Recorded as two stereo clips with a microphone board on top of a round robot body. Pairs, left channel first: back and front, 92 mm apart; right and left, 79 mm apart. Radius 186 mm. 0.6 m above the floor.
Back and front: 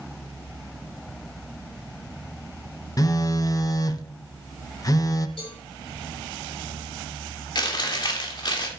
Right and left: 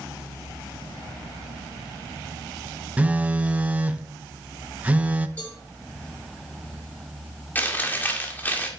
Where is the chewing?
155° right, 2 m.